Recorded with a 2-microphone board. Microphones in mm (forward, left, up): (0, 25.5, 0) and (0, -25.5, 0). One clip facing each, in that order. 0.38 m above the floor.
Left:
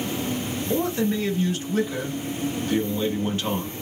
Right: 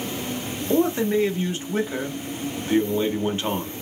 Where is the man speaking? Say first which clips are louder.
Right 4 dB; 25° right (ahead or behind), 0.9 m.